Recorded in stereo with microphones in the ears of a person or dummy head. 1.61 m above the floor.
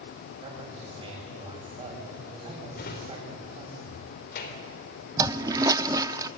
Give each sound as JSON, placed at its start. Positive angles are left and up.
{"t": 0.4, "sound": "a man speaking", "side_deg": -20, "distance_m": 8.5}
{"t": 2.8, "sound": "a drawer", "side_deg": 60, "distance_m": 3.0}
{"t": 5.2, "sound": "a toilet flushing", "side_deg": -15, "distance_m": 0.6}